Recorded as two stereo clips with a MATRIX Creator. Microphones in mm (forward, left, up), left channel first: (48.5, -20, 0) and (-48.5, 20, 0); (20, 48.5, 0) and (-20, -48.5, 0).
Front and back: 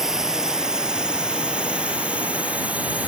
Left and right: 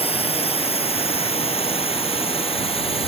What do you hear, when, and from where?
0.0 s a drone: 70° left; by 3.1 s 80° left